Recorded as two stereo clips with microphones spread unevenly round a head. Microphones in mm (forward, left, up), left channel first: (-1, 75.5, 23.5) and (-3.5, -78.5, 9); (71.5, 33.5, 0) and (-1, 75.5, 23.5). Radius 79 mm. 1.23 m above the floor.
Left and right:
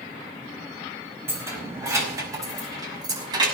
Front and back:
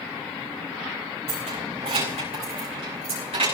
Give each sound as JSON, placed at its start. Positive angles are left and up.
{"t": 1.3, "sound": "keys jangling", "azimuth_deg": -170, "distance_m": 5.0}